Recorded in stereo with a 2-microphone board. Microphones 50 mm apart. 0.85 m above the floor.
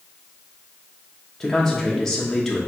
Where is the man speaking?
10° left (ahead or behind), 0.8 m.